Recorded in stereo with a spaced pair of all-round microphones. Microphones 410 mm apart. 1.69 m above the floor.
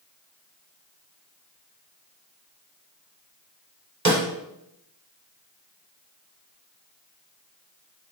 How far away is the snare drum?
About 1.0 m.